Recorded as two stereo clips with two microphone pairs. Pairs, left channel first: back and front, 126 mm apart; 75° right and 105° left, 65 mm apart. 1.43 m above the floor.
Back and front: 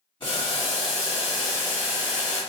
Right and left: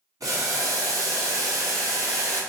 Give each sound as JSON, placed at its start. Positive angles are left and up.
{"t": 0.2, "sound": "boiling", "azimuth_deg": 130, "distance_m": 2.0}